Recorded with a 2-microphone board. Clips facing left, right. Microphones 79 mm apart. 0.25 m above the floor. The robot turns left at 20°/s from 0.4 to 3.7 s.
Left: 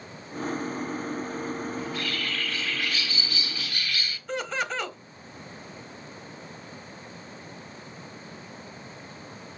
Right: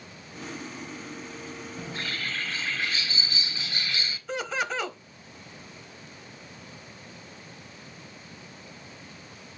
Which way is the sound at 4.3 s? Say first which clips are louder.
Even; centre (ahead or behind).